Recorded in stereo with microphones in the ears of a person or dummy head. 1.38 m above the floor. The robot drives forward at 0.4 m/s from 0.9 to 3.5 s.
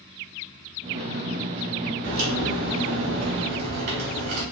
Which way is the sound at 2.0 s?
60° right (ahead or behind).